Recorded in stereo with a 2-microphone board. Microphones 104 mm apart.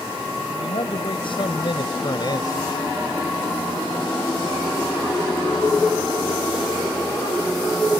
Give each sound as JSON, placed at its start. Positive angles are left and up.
{"t": 0.6, "sound": "a man speaking", "side_deg": 70}